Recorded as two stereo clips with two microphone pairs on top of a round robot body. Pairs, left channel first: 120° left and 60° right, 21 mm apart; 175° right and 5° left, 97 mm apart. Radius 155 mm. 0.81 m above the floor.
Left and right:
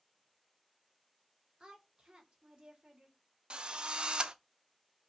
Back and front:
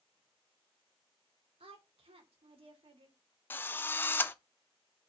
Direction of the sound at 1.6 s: 10° right.